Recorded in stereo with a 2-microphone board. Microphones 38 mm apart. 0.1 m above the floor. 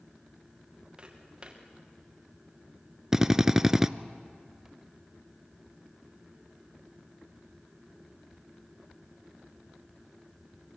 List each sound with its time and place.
1.0 s footsteps: 20° right (ahead or behind), 4.5 m
3.1 s a drill: 10° right (ahead or behind), 0.6 m